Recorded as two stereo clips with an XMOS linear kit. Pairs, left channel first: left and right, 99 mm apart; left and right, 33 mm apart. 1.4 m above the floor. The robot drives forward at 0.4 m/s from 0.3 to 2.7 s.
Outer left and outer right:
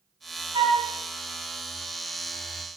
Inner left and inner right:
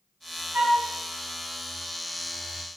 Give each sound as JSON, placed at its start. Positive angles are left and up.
{"t": 0.5, "sound": "a flute", "side_deg": -65, "distance_m": 2.5}